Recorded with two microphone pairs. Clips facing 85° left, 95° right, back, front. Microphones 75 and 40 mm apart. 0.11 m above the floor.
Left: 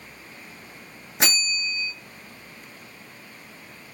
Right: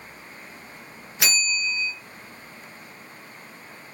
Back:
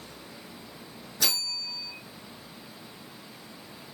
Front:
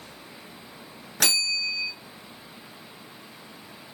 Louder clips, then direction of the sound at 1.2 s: Right 1 dB, front 6 dB; 30° left.